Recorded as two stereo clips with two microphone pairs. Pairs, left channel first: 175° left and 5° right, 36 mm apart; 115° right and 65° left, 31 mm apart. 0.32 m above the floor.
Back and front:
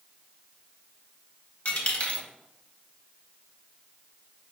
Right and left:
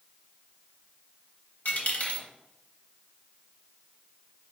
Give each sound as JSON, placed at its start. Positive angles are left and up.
{"t": 1.6, "sound": "a dropped coin", "azimuth_deg": -135, "distance_m": 0.8}